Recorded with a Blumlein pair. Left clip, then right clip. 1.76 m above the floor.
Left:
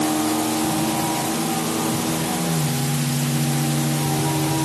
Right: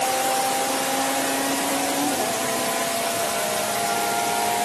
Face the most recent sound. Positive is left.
No sound to turn to.